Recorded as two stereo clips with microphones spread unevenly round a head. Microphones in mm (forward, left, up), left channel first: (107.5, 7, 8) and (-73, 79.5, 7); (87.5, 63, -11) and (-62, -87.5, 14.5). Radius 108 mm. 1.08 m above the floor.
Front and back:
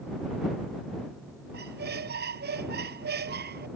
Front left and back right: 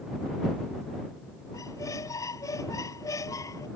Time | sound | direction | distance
1.5 | a squeak | 120° left | ?